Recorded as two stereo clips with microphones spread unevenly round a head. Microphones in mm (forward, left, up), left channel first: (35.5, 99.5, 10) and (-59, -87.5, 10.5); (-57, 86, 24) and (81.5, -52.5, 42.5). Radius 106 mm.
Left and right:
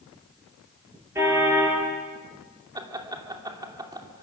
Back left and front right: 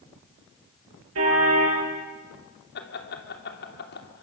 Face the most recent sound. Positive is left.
turn(degrees=170)